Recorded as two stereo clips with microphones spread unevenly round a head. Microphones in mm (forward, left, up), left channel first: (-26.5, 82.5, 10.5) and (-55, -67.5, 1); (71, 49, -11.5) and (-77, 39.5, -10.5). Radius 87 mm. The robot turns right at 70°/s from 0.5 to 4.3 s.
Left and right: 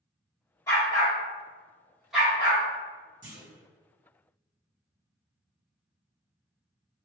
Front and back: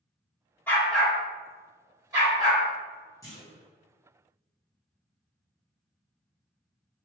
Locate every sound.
0.7 s a dog barking: 65° left, 1.4 m; by 2.6 s 160° right, 1.4 m
3.2 s a clunk: 65° right, 1.2 m; by 3.6 s 35° right, 1.2 m